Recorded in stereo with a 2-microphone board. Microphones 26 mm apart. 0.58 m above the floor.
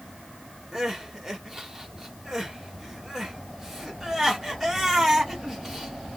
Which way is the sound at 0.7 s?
15° right (ahead or behind).